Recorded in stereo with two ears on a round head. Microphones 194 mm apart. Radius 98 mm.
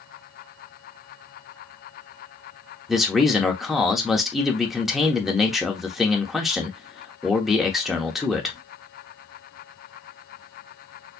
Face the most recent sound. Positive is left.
turn(degrees=0)  # may be behind; listen again after turning